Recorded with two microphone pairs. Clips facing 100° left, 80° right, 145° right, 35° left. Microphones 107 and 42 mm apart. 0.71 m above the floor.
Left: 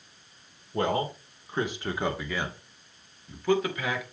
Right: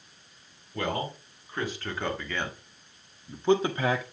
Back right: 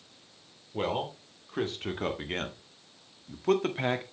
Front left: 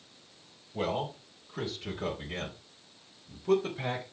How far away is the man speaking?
About 2 m.